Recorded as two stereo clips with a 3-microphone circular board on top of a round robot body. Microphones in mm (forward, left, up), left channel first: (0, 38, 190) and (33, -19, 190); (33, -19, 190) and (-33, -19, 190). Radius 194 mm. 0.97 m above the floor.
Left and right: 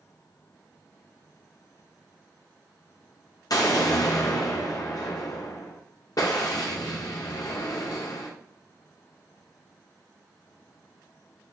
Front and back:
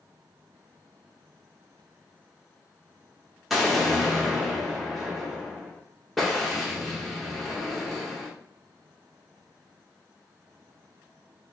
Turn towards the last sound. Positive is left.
turn(degrees=90)